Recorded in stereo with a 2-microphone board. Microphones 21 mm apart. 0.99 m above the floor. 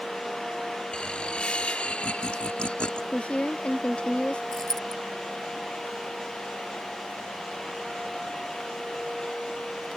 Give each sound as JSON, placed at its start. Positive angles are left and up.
{"t": 0.9, "sound": "laughter", "side_deg": 55}
{"t": 3.1, "sound": "a woman speaking", "side_deg": 75}
{"t": 4.5, "sound": "a dropped coin", "side_deg": 25}